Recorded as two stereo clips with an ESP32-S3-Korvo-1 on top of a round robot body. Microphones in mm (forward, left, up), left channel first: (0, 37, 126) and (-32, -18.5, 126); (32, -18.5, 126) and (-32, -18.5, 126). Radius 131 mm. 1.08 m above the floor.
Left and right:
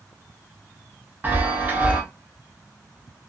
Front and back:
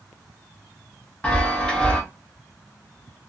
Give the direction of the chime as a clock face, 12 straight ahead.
2 o'clock.